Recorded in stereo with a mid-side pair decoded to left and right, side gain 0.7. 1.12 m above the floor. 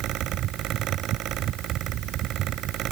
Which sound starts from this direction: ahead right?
A fan, at 0.0 s.